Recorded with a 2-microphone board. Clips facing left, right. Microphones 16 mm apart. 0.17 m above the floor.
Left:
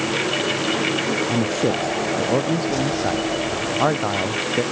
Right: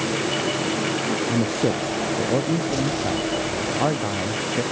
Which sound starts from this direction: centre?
A man speaking, at 1.3 s.